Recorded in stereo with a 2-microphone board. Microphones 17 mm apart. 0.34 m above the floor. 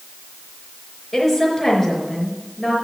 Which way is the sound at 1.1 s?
15° left (ahead or behind).